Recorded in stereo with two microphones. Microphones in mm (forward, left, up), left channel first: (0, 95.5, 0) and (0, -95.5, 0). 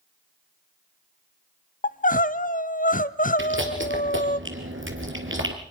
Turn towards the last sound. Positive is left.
turn(degrees=-75)  # may be behind; listen again after turning